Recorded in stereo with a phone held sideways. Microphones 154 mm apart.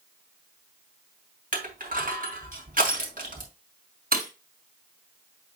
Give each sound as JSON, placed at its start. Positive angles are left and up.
{"t": 1.5, "sound": "crushing", "side_deg": -60, "distance_m": 2.5}
{"t": 4.1, "sound": "breaking glass", "side_deg": -65, "distance_m": 3.0}